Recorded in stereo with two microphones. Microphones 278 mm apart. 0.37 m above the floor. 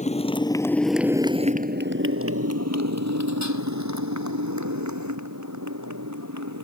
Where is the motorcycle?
25° left (ahead or behind); by 6.6 s 80° right.